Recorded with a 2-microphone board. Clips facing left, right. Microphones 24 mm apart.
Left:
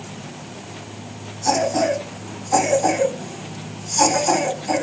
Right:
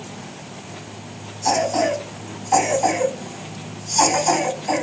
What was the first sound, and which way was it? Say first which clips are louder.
A cough: even; 35° right (ahead or behind).